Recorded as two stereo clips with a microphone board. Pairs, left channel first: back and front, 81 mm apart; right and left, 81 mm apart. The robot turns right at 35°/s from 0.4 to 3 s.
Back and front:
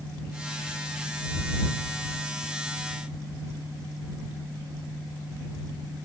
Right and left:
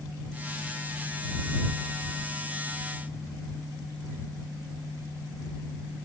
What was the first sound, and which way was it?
Only background noise.